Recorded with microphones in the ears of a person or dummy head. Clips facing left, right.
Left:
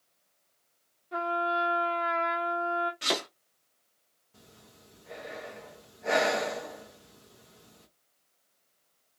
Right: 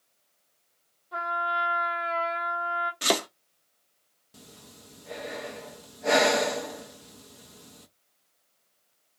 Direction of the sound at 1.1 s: 35° left (ahead or behind).